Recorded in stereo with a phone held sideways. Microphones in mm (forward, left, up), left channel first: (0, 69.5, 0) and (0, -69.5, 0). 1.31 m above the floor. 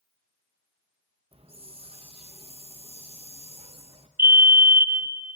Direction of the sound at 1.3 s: 45° right (ahead or behind).